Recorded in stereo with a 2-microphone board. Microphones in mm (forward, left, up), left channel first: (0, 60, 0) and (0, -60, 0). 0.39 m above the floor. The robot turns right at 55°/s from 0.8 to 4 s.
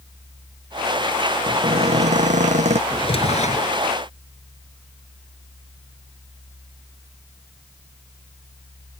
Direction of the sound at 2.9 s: 40° left.